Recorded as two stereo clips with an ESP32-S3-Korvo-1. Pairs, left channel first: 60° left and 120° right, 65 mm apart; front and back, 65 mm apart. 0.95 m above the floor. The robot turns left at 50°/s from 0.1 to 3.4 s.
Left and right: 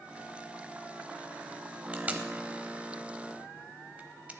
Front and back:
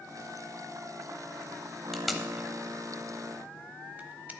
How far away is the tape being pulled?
About 0.8 m.